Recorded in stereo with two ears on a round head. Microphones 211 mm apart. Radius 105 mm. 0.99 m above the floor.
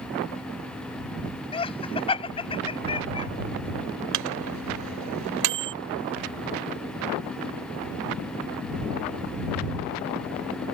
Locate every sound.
1.5 s laughter: 25° left (ahead or behind)
4.1 s a microwave: 85° right